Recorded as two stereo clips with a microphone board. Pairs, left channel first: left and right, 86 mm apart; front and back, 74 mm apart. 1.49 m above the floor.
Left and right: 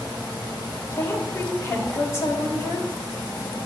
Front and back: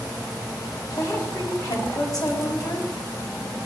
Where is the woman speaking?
35° left, 3.5 m.